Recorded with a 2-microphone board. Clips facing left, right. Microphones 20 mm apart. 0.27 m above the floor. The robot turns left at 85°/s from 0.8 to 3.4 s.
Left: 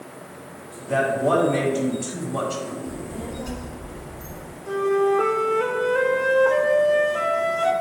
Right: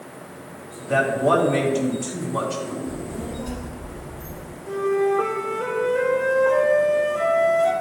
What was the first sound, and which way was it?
A man speaking, 115° right.